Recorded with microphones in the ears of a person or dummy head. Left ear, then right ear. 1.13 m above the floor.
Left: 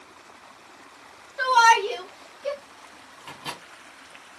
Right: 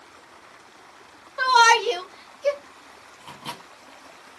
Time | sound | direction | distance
1.4 | a shout | 20° right (ahead or behind) | 1.4 m
3.2 | a microwave | centre (ahead or behind) | 1.6 m